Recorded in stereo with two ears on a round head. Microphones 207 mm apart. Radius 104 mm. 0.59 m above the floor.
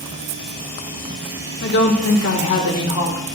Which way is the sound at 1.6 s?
50° left (ahead or behind).